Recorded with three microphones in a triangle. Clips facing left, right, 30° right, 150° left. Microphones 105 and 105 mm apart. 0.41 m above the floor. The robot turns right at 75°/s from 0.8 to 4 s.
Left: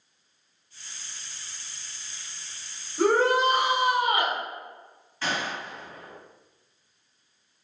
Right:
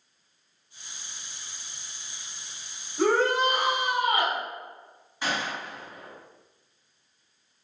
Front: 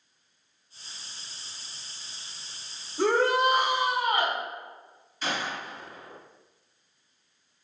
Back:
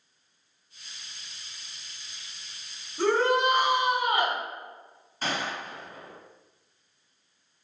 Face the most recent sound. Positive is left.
turn(degrees=-165)